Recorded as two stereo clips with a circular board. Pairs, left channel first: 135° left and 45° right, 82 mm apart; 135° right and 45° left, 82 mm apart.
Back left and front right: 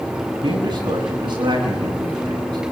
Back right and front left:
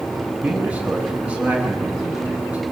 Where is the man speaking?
25° right, 9.5 m.